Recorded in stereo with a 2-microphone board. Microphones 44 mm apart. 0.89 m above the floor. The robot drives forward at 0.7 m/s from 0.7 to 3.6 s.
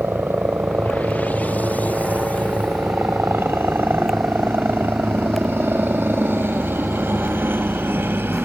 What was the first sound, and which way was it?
A helicopter, 60° right (ahead or behind).